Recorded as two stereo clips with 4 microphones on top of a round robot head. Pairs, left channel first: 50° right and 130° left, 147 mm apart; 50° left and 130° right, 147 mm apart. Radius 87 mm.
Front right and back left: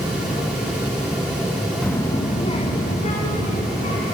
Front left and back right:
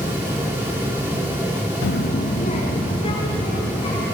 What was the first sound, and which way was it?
A child speaking, 35° left.